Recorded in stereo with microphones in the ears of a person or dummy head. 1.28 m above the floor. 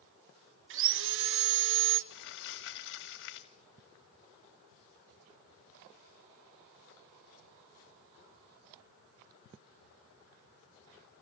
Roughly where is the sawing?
Right.